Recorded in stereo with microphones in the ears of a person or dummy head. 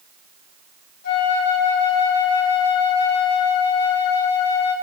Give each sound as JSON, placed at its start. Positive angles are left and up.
{"t": 1.0, "sound": "a flute", "side_deg": 55, "distance_m": 2.5}